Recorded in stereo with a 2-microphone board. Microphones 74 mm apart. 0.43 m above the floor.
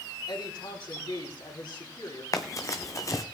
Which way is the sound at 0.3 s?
75° left (ahead or behind).